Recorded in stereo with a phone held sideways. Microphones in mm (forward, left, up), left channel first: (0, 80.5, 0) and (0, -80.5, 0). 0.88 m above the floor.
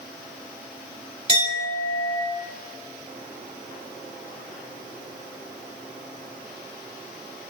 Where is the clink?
35° right (ahead or behind), 2.5 m.